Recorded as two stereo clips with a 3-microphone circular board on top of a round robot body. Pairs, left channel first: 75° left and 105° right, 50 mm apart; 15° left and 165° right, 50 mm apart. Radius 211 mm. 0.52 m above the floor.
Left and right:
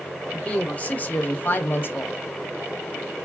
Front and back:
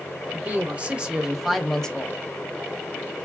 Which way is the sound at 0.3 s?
140° left.